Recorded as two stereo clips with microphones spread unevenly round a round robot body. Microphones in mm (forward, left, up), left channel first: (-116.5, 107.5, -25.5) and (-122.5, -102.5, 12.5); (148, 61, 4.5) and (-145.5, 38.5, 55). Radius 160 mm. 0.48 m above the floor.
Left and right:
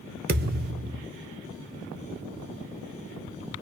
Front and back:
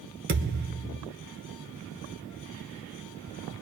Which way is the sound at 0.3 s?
125° right.